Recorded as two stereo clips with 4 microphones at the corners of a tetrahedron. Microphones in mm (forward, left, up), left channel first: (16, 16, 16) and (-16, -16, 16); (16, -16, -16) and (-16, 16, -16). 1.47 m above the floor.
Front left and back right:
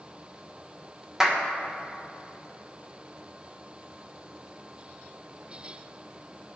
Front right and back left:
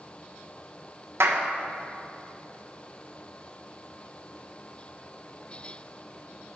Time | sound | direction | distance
1.2 | a clap | 145° left | 1.0 m